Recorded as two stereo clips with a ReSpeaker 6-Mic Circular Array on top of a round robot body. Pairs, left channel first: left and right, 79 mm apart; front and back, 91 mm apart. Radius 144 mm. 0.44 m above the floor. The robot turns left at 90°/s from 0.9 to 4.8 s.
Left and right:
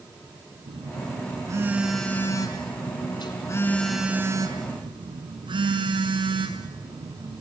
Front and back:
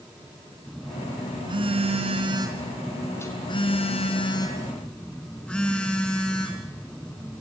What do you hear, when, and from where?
0.7 s a phone buzzing: 90° right, 5 m; by 7.4 s 85° right, 5 m